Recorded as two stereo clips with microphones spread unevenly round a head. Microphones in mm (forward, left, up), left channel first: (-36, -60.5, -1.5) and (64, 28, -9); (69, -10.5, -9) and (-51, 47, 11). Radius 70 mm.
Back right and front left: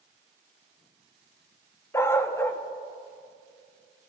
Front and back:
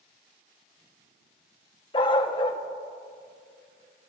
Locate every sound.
1.9 s a dog barking: 80° right, 0.7 m